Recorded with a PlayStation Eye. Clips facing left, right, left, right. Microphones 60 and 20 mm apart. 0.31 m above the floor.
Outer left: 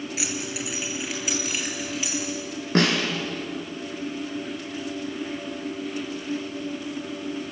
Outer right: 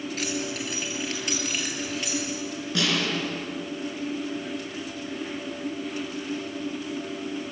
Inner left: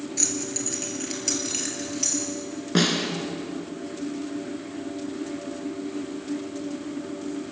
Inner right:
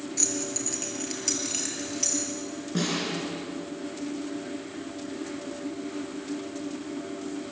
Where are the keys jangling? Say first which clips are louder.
Outer right 3 dB, inner left 1 dB; 10° left (ahead or behind), 4 m; by 2.2 s 5° left (ahead or behind), 5.5 m.